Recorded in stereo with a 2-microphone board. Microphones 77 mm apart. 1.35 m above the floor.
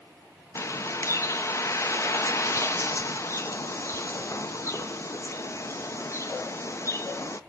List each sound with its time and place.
0.6 s a bird: 40° left (ahead or behind), 0.7 m